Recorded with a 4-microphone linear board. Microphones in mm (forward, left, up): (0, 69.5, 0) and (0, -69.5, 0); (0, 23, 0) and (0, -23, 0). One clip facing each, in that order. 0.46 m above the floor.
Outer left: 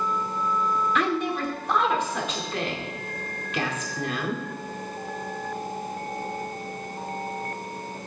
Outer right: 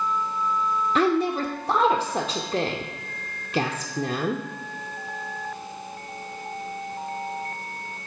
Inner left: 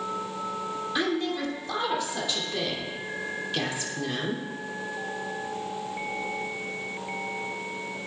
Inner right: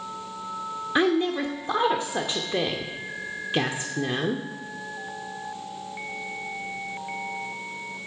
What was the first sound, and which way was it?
A woman speaking, 30° right (ahead or behind).